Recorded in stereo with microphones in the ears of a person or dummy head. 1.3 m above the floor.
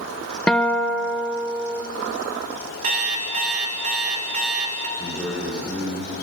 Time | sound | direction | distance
0.5 | a guitar | 5° left (ahead or behind) | 0.6 m
2.8 | an alarm clock | 45° right (ahead or behind) | 1.3 m
5.0 | a man speaking | 10° left (ahead or behind) | 3.5 m